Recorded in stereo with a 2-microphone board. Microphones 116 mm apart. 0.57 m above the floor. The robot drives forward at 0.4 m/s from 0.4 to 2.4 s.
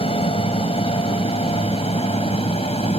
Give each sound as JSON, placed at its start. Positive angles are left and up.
{"t": 0.0, "sound": "an aircraft", "side_deg": 60}